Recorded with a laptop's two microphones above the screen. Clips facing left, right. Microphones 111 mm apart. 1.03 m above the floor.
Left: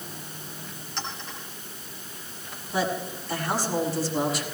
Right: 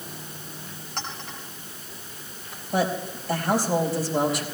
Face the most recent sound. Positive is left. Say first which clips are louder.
# right 2 dB
turn(degrees=-70)  # may be behind; listen again after turning